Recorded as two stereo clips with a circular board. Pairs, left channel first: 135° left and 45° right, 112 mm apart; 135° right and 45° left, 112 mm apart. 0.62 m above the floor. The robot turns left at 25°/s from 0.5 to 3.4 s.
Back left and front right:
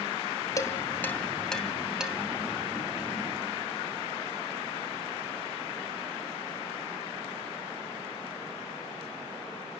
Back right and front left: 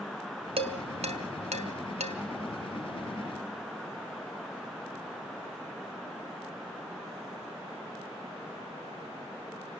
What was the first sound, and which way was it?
Dishes clattering, 75° left.